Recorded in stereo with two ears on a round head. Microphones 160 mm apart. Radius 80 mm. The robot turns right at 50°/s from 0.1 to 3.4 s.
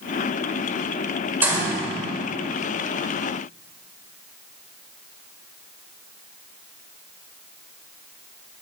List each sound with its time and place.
1.4 s a gunshot: 10° right (ahead or behind), 1.9 m; by 1.8 s 30° right (ahead or behind), 1.9 m